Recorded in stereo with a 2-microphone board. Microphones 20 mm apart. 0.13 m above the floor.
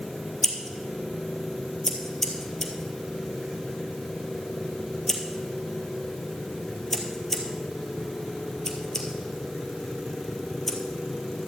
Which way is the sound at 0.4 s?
20° left (ahead or behind).